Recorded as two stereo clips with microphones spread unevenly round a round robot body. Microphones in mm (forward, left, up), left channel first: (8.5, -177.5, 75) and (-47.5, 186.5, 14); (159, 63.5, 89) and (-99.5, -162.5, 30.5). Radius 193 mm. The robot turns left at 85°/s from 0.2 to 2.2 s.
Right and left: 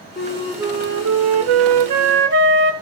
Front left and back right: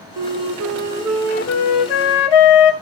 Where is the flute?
145° right, 1.3 m; by 2.7 s 45° left, 1.3 m.